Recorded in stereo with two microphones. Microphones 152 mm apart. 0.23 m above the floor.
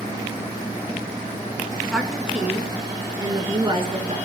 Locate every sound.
1.9 s a woman speaking: centre (ahead or behind), 2.5 m; by 4.2 s 40° right (ahead or behind), 3.5 m